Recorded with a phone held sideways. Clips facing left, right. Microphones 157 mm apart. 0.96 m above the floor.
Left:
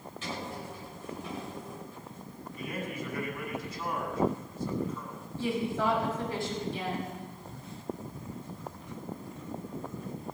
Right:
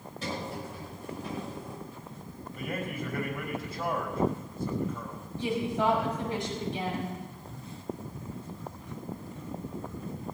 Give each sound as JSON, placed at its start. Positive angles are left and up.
{"t": 0.2, "sound": "a sliding door", "side_deg": -40, "distance_m": 5.5}
{"t": 2.5, "sound": "a man speaking", "side_deg": -55, "distance_m": 4.5}
{"t": 5.4, "sound": "a woman speaking", "side_deg": -20, "distance_m": 5.5}